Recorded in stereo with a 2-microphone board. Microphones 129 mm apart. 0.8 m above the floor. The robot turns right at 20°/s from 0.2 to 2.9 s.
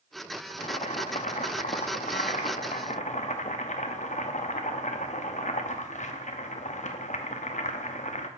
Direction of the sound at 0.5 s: 60° left.